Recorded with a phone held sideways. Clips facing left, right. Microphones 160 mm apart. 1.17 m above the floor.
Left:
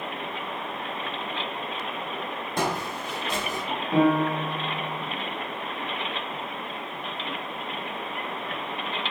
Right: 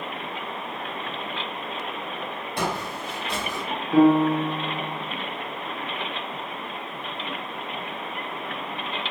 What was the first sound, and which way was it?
Footsteps, 45° left (ahead or behind).